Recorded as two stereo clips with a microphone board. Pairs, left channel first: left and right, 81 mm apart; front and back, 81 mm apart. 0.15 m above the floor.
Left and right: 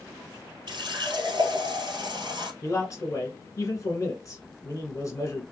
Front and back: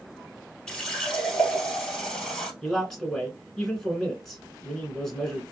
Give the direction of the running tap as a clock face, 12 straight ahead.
3 o'clock.